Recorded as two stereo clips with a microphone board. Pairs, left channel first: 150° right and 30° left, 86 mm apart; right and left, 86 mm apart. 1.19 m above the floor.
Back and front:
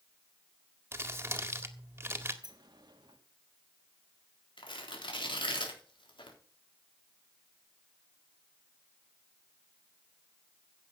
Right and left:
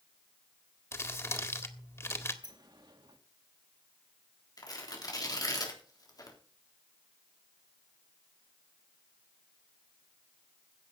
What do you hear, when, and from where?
0.9 s crumpling: 30° right, 1.7 m
2.4 s a sliding door: 60° left, 1.7 m
4.6 s tearing paper: 130° right, 3.5 m